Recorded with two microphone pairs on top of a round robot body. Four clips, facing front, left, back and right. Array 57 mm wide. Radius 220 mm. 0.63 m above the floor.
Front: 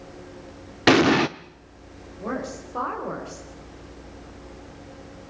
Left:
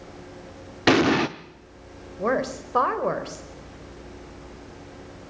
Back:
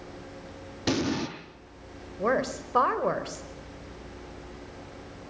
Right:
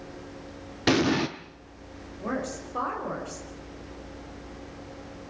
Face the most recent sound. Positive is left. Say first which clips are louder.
# left 7 dB, back 4 dB
turn(degrees=135)